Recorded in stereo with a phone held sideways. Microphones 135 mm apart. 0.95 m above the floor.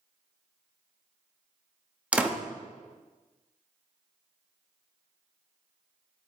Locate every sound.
2.1 s a door slam: 10° right (ahead or behind), 0.8 m